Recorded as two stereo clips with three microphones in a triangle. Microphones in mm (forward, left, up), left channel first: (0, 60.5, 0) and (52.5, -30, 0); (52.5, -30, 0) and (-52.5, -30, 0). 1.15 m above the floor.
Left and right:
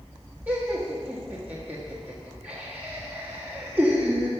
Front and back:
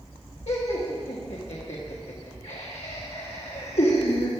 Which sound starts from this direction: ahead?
Laughter, at 0.5 s.